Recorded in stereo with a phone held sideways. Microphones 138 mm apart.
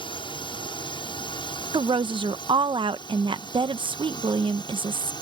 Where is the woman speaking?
40° right (ahead or behind).